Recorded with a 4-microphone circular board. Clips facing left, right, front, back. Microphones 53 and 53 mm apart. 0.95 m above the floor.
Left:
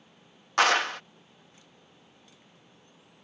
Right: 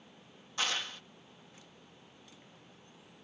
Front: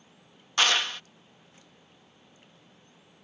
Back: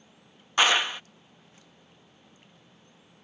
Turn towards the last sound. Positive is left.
turn(degrees=105)